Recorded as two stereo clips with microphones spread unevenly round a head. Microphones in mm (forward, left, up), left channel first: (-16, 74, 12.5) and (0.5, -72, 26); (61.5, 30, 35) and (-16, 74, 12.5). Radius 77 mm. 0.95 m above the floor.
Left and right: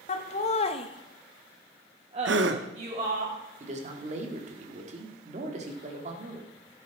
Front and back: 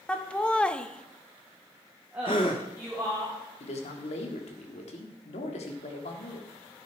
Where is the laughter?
50° left, 1.7 m; by 3.2 s 135° right, 3 m.